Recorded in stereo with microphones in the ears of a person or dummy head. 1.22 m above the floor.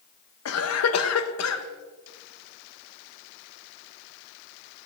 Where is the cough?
85° left, 1.1 m.